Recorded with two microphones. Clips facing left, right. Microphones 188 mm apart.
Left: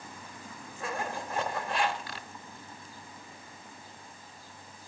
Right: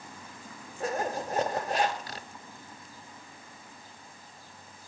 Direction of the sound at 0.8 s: 40° right (ahead or behind).